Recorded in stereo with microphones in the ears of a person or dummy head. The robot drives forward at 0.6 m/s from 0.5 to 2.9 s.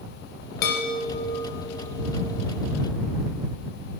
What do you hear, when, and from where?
0.6 s a chime: 50° left (ahead or behind), 1.0 m; by 2.7 s 25° left (ahead or behind), 1.8 m